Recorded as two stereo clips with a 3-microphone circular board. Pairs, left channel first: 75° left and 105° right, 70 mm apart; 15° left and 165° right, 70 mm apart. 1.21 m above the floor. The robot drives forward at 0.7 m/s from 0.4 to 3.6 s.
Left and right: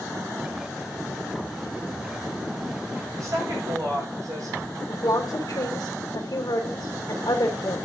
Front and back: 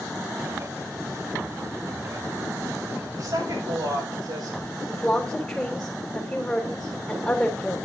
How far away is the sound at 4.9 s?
About 3 m.